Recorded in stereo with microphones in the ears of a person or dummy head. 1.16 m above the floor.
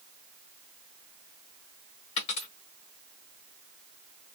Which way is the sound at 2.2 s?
30° left (ahead or behind).